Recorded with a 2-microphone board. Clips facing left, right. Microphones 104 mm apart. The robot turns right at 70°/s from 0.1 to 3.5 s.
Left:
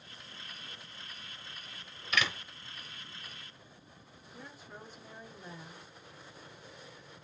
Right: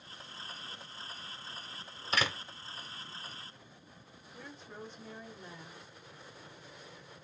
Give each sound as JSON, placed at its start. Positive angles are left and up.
{"t": 2.1, "sound": "a door slam", "side_deg": -35, "distance_m": 0.6}
{"t": 4.3, "sound": "a woman speaking", "side_deg": 5, "distance_m": 1.0}